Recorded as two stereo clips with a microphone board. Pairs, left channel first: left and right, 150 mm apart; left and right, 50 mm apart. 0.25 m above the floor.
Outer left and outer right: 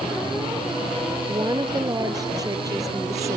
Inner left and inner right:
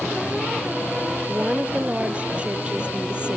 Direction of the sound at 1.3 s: 25° right (ahead or behind).